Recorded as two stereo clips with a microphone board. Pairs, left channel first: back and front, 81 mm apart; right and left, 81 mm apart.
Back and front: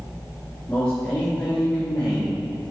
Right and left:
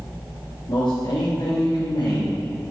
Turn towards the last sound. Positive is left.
turn(degrees=-120)